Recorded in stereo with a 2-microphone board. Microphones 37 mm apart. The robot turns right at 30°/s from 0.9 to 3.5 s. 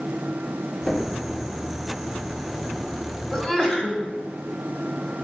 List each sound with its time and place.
0.9 s knocking: 15° left (ahead or behind), 4 m; by 1.1 s 20° left (ahead or behind), 4 m
3.3 s a sneeze: 20° left (ahead or behind), 1.6 m